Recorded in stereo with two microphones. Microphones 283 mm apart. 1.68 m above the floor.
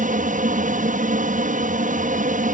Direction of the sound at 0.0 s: 25° right (ahead or behind).